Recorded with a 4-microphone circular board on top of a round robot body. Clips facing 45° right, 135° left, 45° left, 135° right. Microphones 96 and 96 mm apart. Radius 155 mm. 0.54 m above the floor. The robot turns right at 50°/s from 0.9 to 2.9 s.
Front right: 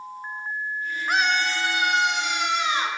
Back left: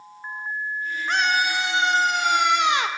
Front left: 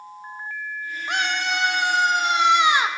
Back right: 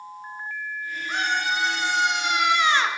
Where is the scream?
35° left, 1.7 m; by 2.9 s 125° left, 1.7 m.